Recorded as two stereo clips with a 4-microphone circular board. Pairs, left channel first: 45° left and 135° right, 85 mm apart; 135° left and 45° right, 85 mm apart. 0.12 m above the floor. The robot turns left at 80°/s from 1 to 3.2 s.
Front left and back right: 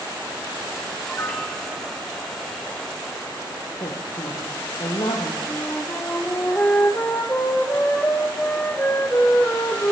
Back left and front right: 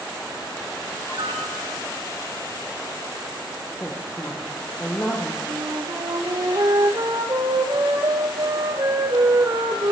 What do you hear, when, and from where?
1.1 s a piano: 10° right, 4 m; by 1.9 s 80° right, 4 m
3.8 s a woman speaking: 65° left, 4 m
5.5 s a flute: 15° right, 3 m